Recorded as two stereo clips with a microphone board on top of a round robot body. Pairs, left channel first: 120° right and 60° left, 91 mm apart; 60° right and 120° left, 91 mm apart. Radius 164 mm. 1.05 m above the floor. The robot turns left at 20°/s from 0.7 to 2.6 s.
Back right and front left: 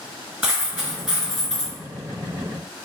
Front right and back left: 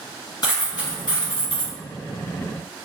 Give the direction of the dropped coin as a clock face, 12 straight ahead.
12 o'clock.